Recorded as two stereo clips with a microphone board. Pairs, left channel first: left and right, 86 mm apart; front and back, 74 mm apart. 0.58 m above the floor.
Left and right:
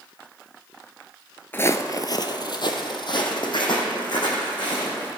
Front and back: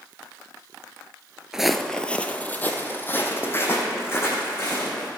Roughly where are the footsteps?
Left.